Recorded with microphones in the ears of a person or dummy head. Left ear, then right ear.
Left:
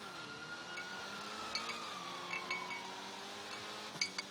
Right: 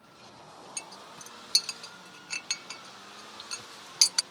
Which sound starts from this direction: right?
A clink, at 0.8 s.